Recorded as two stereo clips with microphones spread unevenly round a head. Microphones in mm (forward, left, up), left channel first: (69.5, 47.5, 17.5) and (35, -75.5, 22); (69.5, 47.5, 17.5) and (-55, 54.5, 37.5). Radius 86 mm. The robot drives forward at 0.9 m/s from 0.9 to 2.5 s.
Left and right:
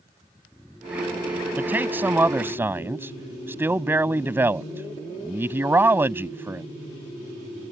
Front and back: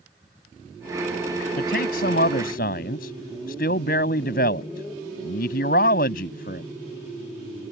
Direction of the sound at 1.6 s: 30° right.